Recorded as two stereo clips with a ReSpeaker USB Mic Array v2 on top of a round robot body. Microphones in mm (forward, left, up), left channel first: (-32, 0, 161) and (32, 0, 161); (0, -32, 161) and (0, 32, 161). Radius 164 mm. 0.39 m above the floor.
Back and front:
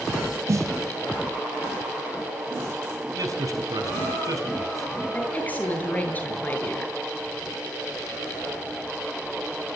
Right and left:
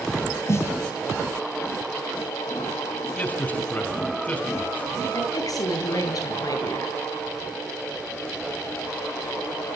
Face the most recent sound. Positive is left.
turn(degrees=-115)